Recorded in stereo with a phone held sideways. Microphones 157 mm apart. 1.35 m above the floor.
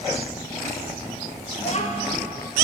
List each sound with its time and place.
1.6 s a child speaking: 45° left (ahead or behind), 1.1 m